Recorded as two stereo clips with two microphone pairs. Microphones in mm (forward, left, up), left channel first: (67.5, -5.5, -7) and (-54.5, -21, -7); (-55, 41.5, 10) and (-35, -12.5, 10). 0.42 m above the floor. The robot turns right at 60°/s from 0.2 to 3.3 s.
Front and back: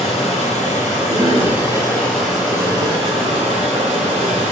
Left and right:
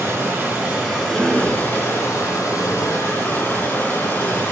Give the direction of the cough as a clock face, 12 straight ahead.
5 o'clock.